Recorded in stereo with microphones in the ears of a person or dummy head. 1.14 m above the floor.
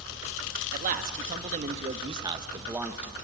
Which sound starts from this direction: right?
A man speaking, at 0.7 s.